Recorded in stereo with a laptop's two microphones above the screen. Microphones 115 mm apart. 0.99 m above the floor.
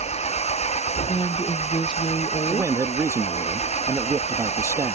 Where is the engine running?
75° left (ahead or behind).